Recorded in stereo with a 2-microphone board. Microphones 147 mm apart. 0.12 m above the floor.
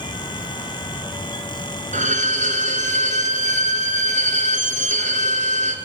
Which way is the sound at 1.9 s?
55° right (ahead or behind).